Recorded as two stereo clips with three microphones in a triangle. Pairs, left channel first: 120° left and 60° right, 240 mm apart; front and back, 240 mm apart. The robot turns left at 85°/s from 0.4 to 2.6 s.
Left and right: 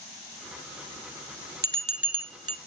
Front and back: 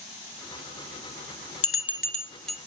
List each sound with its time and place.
1.6 s a bell: 15° right, 0.6 m; by 2.6 s 95° right, 0.6 m